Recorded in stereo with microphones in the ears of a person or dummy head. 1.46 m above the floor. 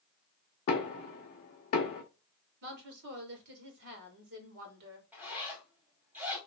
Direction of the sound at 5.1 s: 10° right (ahead or behind).